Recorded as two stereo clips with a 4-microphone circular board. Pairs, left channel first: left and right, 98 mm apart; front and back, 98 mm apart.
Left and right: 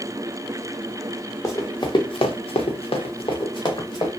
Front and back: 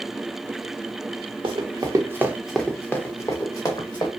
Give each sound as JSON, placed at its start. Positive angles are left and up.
{"t": 1.4, "sound": "running footsteps", "azimuth_deg": 150, "distance_m": 0.9}